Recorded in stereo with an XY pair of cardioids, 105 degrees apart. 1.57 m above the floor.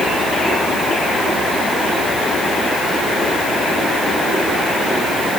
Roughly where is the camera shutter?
I don't hear a camera shutter.